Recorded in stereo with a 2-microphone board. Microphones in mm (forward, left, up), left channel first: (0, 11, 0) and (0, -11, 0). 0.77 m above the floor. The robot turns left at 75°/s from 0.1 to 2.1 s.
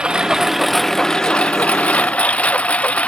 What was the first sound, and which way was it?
A lawn mower, 135° right.